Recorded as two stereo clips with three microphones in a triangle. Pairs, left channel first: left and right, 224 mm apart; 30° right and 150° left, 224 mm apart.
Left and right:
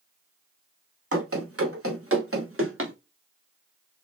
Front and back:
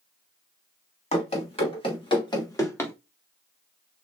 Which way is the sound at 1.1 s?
90° right.